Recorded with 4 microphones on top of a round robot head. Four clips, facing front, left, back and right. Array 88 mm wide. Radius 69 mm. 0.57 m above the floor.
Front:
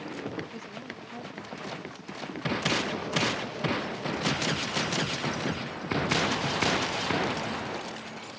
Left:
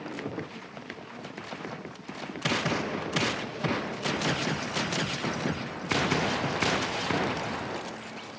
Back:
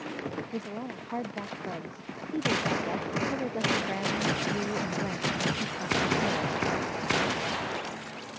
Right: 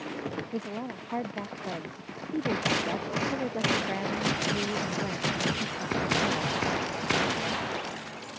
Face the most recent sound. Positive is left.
turn(degrees=-145)